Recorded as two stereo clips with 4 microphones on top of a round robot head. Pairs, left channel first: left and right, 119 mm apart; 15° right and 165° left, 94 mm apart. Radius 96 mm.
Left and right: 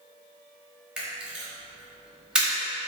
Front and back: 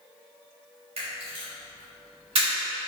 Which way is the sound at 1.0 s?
175° right.